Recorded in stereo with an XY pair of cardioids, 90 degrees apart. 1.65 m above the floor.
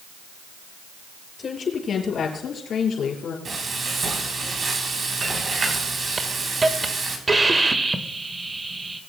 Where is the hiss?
30° right, 1.5 m.